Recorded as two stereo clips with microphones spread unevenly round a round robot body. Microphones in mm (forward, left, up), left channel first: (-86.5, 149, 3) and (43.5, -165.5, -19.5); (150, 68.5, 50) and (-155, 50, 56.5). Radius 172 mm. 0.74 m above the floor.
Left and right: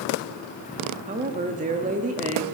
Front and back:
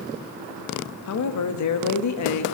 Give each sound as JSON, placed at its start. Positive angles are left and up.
{"t": 1.1, "sound": "a woman speaking", "azimuth_deg": -5, "distance_m": 0.9}